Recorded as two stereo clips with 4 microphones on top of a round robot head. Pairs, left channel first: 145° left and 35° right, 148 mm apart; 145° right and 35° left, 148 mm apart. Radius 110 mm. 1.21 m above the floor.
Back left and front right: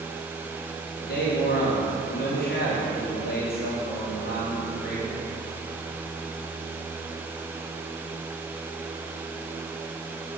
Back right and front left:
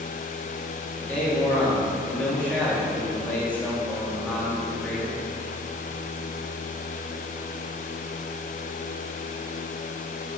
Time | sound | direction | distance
1.0 | a man speaking | 130° left | 3 m